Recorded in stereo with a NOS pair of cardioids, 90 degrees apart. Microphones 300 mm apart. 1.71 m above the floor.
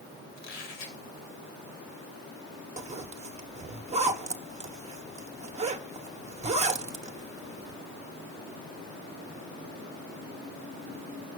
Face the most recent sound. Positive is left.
turn(degrees=-20)